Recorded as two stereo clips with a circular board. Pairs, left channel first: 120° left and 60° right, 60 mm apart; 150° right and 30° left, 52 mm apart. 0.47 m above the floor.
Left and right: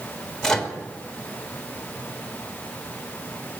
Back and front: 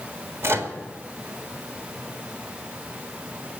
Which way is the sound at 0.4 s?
40° left.